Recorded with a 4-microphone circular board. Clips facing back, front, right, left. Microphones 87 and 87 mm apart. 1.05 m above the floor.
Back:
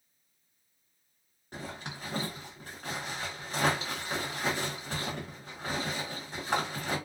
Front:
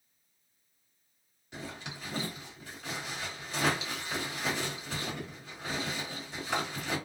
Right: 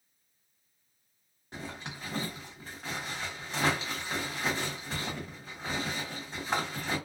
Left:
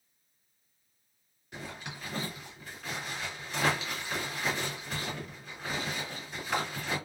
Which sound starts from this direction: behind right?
A zipper, at 1.5 s.